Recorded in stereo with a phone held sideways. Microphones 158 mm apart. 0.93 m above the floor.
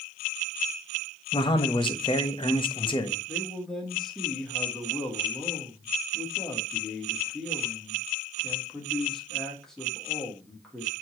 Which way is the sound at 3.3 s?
5° left (ahead or behind).